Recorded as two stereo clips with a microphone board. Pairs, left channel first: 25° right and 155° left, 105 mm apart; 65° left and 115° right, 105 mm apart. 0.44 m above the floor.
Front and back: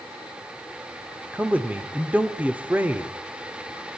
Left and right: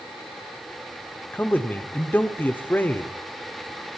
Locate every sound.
1.3 s a man speaking: 110° left, 0.9 m